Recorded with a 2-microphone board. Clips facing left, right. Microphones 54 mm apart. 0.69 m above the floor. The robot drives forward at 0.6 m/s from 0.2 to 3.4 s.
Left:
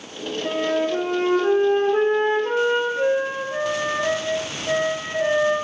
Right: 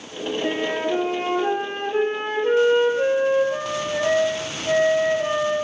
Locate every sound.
0.4 s a flute: 45° right (ahead or behind), 4.5 m; by 5.5 s 30° right (ahead or behind), 5.5 m